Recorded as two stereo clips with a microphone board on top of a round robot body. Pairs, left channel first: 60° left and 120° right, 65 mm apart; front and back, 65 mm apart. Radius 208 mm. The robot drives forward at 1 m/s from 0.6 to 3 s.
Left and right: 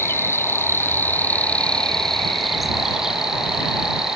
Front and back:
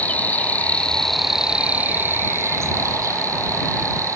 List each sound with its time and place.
0.0 s an insect: 50° left; by 4.2 s 160° left